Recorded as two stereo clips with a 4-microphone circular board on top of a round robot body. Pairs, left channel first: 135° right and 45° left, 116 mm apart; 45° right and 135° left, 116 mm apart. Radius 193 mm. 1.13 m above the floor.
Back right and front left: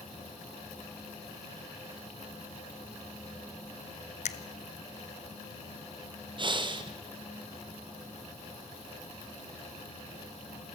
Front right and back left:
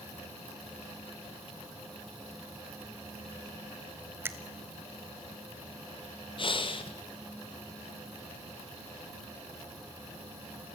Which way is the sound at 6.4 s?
Straight ahead.